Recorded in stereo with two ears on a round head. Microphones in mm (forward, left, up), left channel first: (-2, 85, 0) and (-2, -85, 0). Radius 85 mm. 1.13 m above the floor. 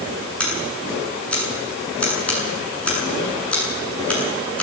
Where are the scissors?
5° left (ahead or behind), 8 m.